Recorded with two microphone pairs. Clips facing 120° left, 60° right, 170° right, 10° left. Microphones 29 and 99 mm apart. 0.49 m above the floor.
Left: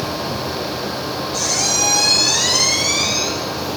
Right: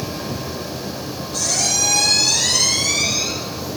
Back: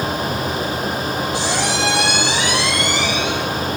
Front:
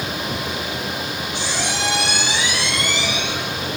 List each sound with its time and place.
1.3 s a squeak: 160° right, 6 m